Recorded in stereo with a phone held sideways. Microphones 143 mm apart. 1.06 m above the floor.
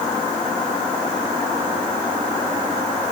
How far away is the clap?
No clap in this recording.